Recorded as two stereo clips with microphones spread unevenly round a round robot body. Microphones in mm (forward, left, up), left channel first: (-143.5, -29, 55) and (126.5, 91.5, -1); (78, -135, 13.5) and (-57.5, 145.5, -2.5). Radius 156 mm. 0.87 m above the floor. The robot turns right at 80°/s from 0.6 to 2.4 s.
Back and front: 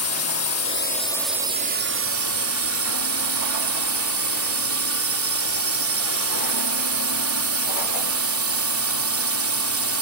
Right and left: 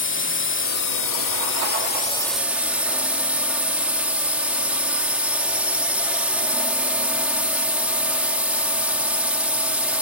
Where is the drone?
115° right; by 10.0 s 30° left.